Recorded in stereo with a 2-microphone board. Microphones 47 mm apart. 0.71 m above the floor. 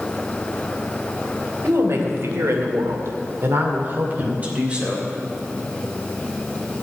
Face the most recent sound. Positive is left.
turn(degrees=-20)  # may be behind; listen again after turning